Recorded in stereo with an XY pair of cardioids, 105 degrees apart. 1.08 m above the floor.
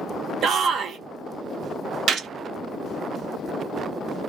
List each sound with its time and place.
0.4 s a shout: 65° right, 0.8 m
2.1 s a gunshot: 60° right, 0.7 m